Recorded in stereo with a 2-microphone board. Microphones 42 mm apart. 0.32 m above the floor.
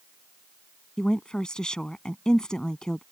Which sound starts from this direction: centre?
A woman speaking, at 1.0 s.